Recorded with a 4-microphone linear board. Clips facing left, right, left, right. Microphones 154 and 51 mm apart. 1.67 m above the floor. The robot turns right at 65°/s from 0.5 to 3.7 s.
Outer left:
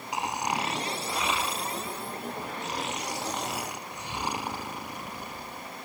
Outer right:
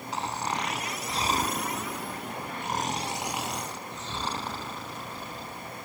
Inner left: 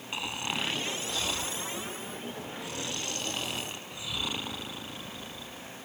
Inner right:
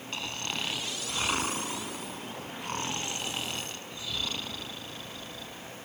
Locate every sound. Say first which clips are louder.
0.1 s snoring: outer left 2 dB, inner left 2 dB; 165° left; by 5.8 s 15° left